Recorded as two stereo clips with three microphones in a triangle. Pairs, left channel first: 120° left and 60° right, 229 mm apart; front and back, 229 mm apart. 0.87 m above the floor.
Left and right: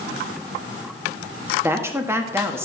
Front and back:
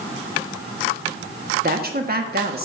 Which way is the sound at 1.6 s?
140° right.